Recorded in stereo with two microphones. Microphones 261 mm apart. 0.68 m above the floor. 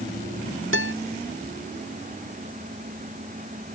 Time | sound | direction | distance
0.7 | a guitar | 50° right (ahead or behind) | ?